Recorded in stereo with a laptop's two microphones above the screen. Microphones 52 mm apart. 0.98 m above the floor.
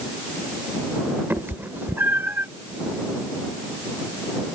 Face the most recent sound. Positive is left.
turn(degrees=-45)  # may be behind; listen again after turning